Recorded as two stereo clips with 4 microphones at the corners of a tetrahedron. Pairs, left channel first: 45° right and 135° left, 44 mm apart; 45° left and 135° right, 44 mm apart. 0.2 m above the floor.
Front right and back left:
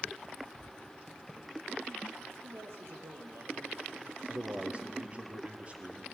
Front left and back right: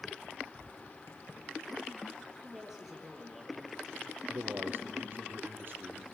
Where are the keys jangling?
35° left, 3.5 m.